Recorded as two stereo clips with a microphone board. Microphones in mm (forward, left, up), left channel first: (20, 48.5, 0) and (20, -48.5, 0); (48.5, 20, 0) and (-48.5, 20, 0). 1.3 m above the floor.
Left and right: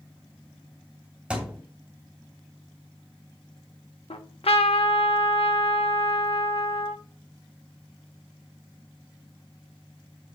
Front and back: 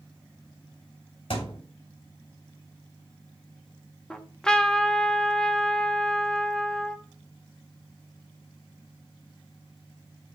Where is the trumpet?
80° left, 0.9 m.